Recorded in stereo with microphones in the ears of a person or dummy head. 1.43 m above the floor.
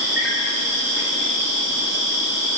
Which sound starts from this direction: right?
An insect, at 0.0 s.